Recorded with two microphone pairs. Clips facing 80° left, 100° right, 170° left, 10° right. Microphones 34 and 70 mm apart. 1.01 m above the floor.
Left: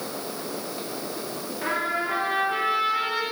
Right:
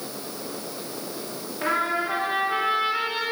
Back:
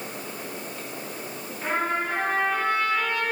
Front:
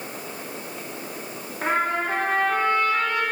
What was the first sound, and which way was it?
A trumpet, 35° right.